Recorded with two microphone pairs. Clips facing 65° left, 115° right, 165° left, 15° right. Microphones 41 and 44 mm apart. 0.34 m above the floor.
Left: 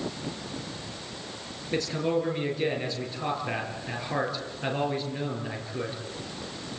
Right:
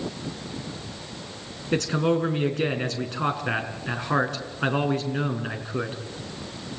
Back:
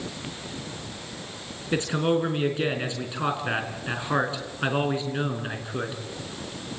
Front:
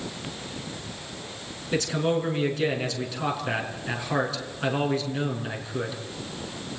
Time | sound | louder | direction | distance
1.7 | a man speaking | right 4 dB, back 1 dB | 135° right | 4.5 m